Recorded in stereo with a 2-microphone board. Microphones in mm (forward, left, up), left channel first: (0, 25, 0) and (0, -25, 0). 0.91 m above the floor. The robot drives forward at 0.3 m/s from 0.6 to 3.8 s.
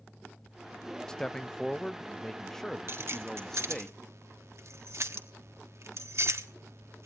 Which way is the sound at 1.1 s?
10° left (ahead or behind).